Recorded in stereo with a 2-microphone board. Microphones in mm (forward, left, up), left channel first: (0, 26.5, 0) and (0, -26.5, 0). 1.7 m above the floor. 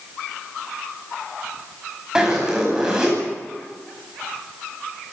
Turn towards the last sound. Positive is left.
turn(degrees=-10)  # may be behind; listen again after turning